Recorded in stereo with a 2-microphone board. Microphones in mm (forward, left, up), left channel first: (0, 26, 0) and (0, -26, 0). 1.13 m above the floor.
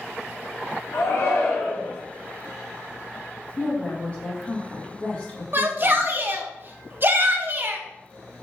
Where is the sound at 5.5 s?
40° right (ahead or behind), 0.6 m.